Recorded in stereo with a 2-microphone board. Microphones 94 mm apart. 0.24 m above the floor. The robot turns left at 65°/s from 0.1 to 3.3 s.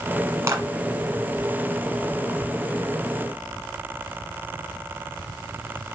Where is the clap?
35° right (ahead or behind), 1.8 m; by 0.7 s 45° right (ahead or behind), 1.8 m.